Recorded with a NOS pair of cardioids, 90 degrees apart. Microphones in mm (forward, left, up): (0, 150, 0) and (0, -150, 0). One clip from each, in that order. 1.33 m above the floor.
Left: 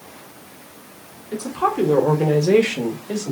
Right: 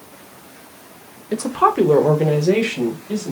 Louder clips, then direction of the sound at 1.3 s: Right 5 dB; 45° right.